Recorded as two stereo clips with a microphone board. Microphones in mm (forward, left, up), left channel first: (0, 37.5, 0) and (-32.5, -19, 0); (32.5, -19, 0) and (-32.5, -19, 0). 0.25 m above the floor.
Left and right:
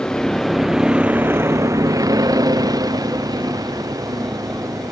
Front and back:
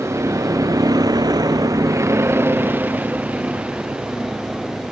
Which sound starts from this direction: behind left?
A vehicle, at 0.0 s.